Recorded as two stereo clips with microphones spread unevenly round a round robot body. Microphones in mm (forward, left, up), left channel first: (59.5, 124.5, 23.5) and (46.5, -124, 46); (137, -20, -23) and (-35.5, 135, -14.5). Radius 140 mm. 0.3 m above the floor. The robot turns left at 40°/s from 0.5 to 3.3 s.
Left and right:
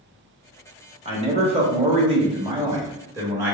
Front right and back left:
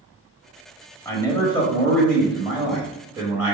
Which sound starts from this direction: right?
A man speaking, at 1.1 s.